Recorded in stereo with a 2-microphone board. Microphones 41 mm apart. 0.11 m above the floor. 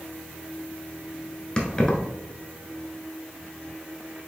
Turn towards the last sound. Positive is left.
turn(degrees=20)  # may be behind; listen again after turning